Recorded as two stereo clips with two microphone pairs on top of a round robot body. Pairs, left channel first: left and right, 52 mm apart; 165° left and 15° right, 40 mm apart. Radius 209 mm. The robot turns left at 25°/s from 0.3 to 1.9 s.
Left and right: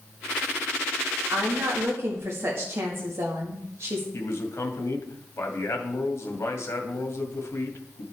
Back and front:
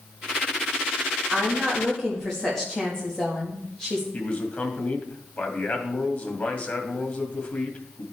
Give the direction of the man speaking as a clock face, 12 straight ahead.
8 o'clock.